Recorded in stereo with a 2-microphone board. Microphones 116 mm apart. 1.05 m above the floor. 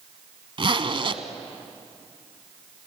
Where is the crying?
I don't hear crying.